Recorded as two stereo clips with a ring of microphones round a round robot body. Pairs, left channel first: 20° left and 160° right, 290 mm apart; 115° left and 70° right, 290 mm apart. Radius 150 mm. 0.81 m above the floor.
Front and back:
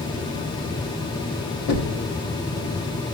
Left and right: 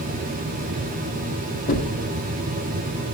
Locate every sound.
1.7 s knocking: 50° left, 1.2 m